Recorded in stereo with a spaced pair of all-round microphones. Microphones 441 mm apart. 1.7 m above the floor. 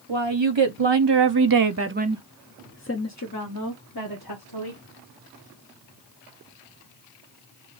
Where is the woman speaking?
85° right, 1.3 m; by 4.8 s 60° left (ahead or behind), 1.8 m.